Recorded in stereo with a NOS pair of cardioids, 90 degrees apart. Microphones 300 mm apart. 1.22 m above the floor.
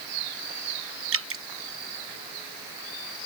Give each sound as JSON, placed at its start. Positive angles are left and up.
{"t": 1.1, "sound": "dripping", "azimuth_deg": -50}